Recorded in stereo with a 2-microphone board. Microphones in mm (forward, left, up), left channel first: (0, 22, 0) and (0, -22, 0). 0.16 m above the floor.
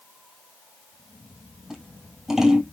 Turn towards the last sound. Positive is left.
turn(degrees=-10)  # may be behind; listen again after turning